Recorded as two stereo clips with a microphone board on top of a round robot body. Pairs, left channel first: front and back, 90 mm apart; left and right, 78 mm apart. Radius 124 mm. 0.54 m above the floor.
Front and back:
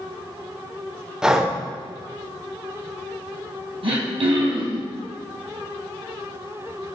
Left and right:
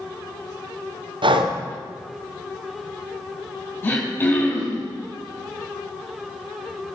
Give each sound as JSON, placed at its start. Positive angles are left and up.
{"t": 1.2, "sound": "breathing", "azimuth_deg": -100, "distance_m": 1.1}
{"t": 3.8, "sound": "throat clearing", "azimuth_deg": 155, "distance_m": 3.5}